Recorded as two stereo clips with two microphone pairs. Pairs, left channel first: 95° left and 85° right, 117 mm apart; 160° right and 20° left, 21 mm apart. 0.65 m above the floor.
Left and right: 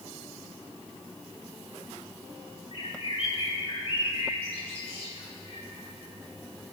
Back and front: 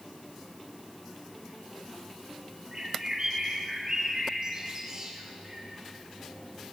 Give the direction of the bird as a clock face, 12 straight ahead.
10 o'clock.